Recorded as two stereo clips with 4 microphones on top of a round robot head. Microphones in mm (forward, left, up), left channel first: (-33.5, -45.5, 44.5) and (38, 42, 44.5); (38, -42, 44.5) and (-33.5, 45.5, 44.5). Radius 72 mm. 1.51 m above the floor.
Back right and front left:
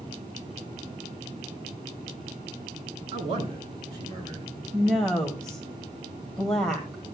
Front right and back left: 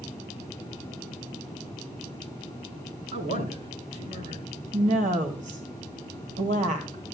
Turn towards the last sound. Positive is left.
turn(degrees=145)